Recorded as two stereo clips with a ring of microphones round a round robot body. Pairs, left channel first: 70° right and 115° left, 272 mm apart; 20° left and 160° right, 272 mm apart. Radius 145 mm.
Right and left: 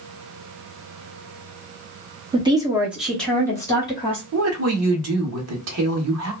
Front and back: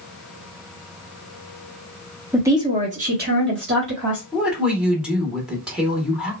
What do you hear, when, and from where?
2.3 s a woman speaking: 130° left, 0.9 m; by 4.2 s 135° right, 1.5 m
4.3 s a woman speaking: 115° left, 1.3 m